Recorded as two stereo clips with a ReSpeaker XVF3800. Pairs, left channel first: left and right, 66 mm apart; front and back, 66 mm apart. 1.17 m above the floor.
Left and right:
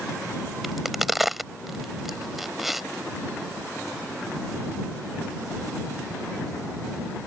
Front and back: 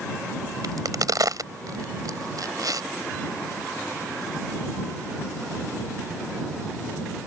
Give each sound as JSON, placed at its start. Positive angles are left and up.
{"t": 0.6, "sound": "a crack", "azimuth_deg": -175}